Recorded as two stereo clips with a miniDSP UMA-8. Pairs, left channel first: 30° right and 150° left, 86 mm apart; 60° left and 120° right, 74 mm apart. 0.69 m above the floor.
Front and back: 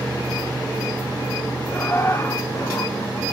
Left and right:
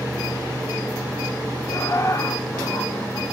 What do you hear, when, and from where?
1.7 s laughter: 25° left, 1.6 m; by 3.2 s 10° left, 3.5 m